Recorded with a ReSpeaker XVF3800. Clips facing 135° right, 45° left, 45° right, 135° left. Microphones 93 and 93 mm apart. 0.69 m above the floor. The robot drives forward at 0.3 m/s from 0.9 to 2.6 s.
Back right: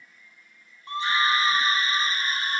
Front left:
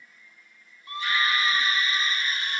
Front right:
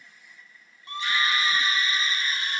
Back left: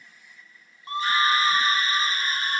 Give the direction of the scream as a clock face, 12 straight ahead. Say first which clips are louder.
Back right 3 dB, back left 5 dB; 6 o'clock.